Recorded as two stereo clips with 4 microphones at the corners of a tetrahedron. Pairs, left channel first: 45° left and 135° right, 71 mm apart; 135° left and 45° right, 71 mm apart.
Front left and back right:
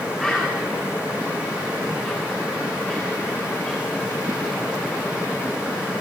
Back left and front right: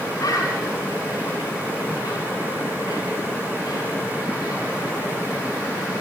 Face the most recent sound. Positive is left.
turn(degrees=120)